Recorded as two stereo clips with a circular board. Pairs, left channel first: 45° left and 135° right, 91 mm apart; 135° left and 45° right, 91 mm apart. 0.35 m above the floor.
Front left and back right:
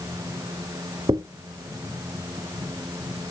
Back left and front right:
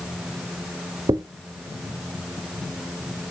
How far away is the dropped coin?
About 0.7 m.